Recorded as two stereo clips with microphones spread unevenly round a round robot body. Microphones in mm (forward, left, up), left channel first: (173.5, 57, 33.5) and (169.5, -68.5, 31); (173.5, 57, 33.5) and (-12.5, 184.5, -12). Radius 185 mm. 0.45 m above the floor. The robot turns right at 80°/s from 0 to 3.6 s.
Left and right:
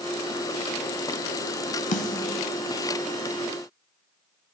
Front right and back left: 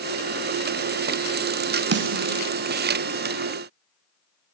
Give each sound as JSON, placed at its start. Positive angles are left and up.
{"t": 1.9, "sound": "a snare drum", "azimuth_deg": 90, "distance_m": 0.5}